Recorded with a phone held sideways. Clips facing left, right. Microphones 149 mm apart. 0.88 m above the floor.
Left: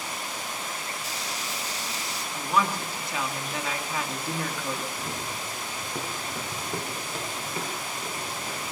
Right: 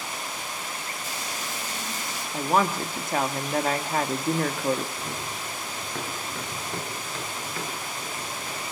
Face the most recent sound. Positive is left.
turn(degrees=25)  # may be behind; listen again after turning